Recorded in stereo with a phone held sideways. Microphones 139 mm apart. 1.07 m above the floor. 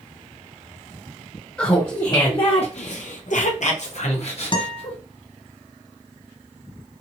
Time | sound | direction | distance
1.6 | laughter | 10° left (ahead or behind) | 0.9 m
4.5 | a guitar | 35° left (ahead or behind) | 0.6 m